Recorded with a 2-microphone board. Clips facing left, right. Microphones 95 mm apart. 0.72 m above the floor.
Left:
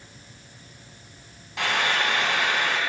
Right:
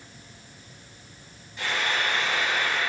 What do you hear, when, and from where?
1.6 s frying: 90° left, 2.5 m